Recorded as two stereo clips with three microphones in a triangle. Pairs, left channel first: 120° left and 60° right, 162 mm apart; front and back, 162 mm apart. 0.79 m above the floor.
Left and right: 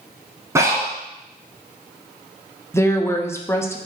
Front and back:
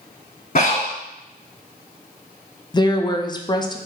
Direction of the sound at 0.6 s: 5° left.